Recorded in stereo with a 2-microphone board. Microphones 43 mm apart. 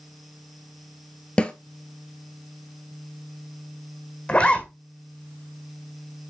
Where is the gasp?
I don't hear a gasp.